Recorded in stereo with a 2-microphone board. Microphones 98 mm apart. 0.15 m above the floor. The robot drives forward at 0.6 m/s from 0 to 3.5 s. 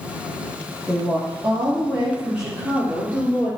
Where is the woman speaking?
15° right (ahead or behind), 3 m; by 3.5 s 10° right (ahead or behind), 4.5 m.